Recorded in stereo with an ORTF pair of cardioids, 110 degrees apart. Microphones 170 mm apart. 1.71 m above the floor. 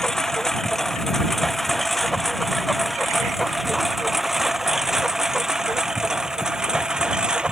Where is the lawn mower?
5° left; by 7.5 s 5° right.